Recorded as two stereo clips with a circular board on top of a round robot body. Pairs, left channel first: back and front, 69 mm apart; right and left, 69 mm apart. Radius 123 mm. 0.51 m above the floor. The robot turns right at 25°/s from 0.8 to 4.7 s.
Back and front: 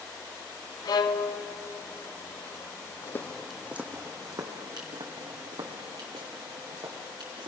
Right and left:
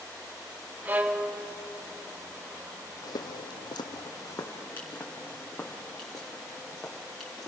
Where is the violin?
155° left, 1.5 m; by 1.5 s 170° left, 1.5 m.